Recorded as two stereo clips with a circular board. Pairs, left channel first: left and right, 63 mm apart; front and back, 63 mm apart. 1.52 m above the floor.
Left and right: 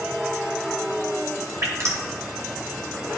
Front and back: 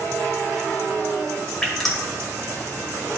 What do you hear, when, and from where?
1.6 s dripping: 80° right, 1.7 m